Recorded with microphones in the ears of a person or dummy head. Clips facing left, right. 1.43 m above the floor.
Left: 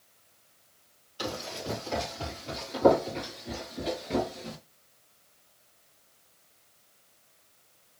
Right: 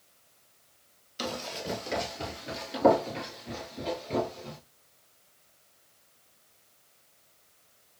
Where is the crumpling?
No crumpling in this recording.